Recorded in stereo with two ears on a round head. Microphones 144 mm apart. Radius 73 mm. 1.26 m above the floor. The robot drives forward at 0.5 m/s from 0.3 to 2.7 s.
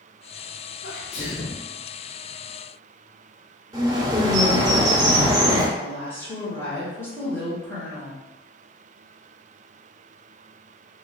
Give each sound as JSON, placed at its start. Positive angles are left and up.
{"t": 0.8, "sound": "a sneeze", "side_deg": 55, "distance_m": 0.6}
{"t": 3.7, "sound": "a bird", "side_deg": -20, "distance_m": 0.8}
{"t": 5.8, "sound": "a woman speaking", "side_deg": 15, "distance_m": 0.9}